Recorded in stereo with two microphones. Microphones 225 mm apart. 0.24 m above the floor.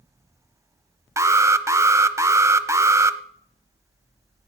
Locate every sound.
1.2 s an alarm: 15° right (ahead or behind), 0.7 m